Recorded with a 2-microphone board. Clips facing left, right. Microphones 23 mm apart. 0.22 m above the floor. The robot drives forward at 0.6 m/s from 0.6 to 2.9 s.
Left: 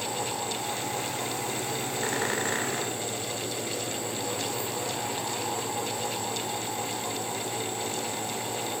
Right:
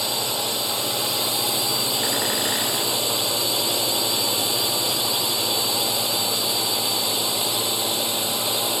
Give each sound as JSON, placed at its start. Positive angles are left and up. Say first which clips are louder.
{"t": 0.0, "sound": "a drone", "louder": "right 7 dB", "side_deg": -75}